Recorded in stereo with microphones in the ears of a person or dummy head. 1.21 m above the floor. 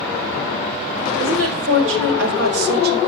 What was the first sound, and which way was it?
A woman speaking, 85° right.